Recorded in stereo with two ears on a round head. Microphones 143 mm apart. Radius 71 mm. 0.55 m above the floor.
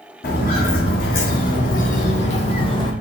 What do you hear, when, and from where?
0.2 s footsteps: 60° left (ahead or behind), 1.4 m; by 2.9 s 30° left (ahead or behind), 0.9 m